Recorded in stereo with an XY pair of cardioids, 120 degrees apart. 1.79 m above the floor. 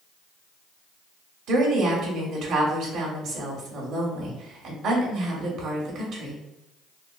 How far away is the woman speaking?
About 1.2 m.